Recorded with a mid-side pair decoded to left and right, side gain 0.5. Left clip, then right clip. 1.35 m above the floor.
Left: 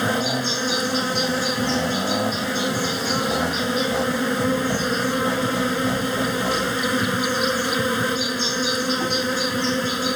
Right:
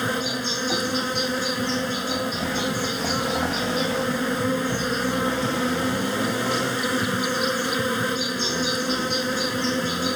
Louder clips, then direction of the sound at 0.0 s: Left 3 dB; 10° left.